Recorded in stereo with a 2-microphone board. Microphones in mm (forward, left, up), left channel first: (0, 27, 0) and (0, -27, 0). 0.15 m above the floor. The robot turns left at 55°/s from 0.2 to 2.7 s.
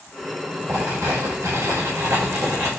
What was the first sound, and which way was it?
Writing, 25° right.